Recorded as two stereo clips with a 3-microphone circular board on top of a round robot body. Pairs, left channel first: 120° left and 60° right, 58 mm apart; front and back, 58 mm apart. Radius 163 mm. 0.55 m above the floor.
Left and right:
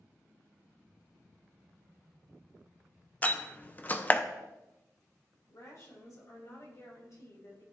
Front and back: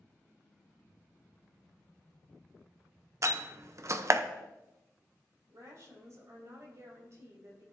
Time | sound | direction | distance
3.2 | a door slam | 175° left | 0.8 m
5.5 | a woman speaking | 145° left | 4 m